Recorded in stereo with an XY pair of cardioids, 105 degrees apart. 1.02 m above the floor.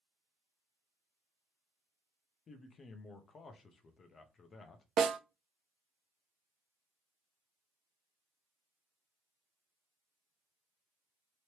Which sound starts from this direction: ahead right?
A snare drum, at 5.0 s.